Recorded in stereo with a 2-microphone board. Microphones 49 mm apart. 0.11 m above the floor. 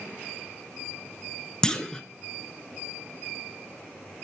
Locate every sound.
1.6 s a clunk: 10° left (ahead or behind), 0.7 m